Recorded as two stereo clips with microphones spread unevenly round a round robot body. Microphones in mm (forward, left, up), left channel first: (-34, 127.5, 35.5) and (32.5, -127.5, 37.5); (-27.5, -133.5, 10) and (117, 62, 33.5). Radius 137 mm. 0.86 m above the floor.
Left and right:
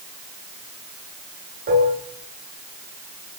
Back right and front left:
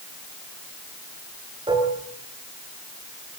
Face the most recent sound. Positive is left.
turn(degrees=-15)